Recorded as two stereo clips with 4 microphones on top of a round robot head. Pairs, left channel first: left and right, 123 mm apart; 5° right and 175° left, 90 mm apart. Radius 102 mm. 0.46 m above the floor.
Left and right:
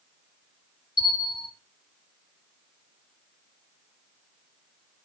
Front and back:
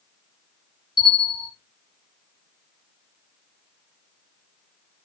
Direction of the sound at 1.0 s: 35° left.